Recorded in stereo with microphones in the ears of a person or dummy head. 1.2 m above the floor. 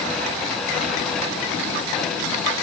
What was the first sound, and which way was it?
Only background noise.